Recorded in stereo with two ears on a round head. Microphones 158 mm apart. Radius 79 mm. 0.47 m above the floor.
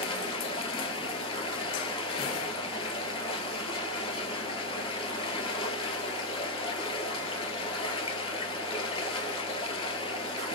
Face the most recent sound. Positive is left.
turn(degrees=30)  # may be behind; listen again after turning